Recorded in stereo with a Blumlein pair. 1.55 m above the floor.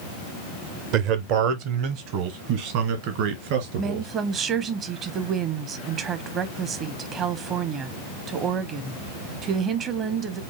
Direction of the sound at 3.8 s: 30° right.